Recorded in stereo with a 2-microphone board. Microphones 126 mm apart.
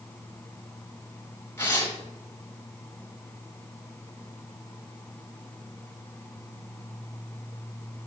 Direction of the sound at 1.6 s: 15° left (ahead or behind).